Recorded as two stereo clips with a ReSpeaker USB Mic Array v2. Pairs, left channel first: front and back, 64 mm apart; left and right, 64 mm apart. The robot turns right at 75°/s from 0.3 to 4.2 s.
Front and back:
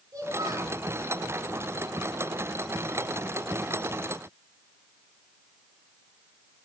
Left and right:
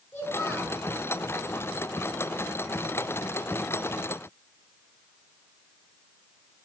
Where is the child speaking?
135° left, 5 m; by 0.8 s 170° left, 5 m.